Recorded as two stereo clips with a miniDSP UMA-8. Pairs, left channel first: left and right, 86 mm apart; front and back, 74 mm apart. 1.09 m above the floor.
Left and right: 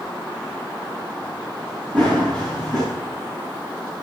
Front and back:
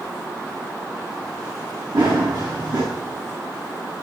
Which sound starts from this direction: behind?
Running footsteps, at 1.9 s.